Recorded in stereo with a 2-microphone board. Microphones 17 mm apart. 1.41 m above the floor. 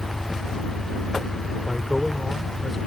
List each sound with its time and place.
0.0 s an engine running: 40° right (ahead or behind)
1.7 s a man speaking: 5° left (ahead or behind)